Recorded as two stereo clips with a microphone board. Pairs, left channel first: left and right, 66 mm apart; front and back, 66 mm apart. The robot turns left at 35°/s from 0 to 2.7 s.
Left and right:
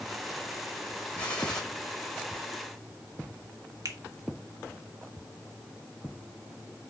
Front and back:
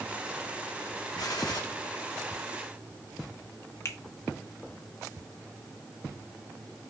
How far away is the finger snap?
About 1.2 m.